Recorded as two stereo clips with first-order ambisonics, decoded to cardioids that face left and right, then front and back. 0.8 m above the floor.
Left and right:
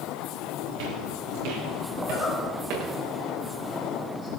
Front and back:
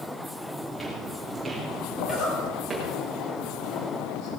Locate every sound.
0.7 s footsteps: 90° right, 5.5 m; by 3.0 s 105° right, 6.5 m
2.0 s a zipper: 10° left, 5.5 m